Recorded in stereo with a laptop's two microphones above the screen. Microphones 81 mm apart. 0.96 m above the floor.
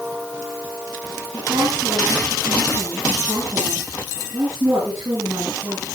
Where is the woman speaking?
55° right (ahead or behind), 8.5 m; by 5.9 s 35° right (ahead or behind), 9.5 m.